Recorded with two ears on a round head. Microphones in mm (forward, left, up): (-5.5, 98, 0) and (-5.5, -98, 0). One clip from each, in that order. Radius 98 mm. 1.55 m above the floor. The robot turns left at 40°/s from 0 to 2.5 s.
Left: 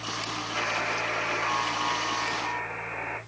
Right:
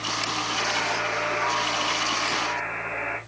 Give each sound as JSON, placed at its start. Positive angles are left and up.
{"t": 0.6, "sound": "a buzzer", "azimuth_deg": 40, "distance_m": 4.0}